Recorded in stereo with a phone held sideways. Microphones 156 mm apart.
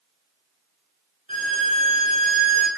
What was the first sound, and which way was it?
A violin, 55° right (ahead or behind).